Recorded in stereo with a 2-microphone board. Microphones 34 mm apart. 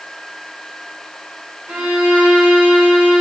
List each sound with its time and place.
1.7 s a violin: 60° right (ahead or behind), 5 m